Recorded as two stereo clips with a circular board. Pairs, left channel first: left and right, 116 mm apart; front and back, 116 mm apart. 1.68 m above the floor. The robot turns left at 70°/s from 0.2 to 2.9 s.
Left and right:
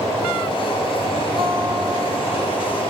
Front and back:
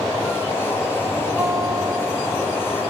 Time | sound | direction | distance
1.4 | a guitar | 105° right | 2 m